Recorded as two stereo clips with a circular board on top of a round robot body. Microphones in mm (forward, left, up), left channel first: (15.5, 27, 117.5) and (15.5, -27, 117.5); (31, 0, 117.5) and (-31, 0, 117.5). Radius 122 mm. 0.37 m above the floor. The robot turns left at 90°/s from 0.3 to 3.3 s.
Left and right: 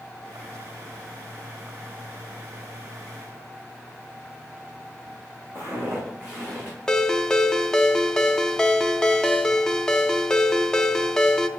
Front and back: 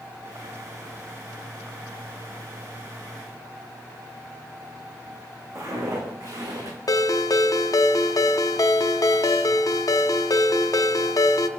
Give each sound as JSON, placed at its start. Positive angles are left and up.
{"t": 5.5, "sound": "footsteps", "azimuth_deg": -140, "distance_m": 2.5}
{"t": 6.9, "sound": "a ringtone", "azimuth_deg": 15, "distance_m": 0.6}